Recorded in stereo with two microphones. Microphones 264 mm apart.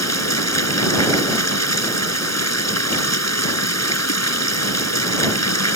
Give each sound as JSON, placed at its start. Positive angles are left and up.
{"t": 0.0, "sound": "running water", "side_deg": 80}